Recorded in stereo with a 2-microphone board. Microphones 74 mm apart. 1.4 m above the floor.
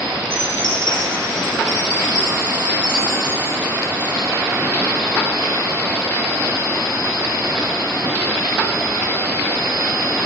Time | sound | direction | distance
0.3 | a chime | 80° left | 5.5 m